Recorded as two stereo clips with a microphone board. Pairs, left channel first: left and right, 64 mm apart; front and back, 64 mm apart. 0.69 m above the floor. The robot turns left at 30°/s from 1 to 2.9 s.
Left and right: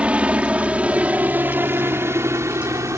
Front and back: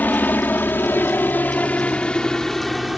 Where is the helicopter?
35° right; by 3.0 s 90° right.